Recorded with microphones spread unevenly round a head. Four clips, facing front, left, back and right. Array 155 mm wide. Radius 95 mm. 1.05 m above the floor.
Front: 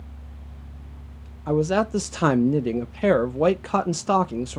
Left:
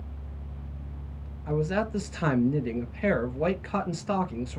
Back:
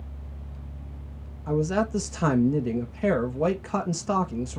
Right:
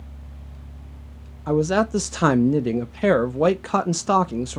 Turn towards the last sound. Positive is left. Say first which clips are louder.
# right 8 dB, front 4 dB
turn(degrees=-50)